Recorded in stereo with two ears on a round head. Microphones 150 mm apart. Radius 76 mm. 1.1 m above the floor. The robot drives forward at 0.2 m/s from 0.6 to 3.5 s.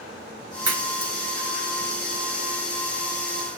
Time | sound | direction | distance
0.7 | a crack | 20° right (ahead or behind) | 5 m